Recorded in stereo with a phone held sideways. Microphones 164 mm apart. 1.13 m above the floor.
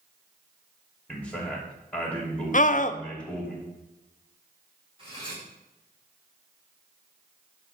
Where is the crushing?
No crushing in this recording.